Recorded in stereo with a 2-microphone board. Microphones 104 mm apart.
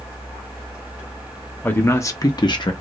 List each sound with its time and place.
1.6 s a man speaking: 15° left (ahead or behind), 0.7 m; by 2.7 s 50° left (ahead or behind), 0.6 m